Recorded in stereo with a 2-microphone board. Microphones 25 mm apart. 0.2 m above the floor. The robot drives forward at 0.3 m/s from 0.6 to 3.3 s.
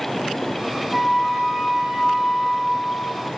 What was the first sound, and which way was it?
A flute, 55° left (ahead or behind).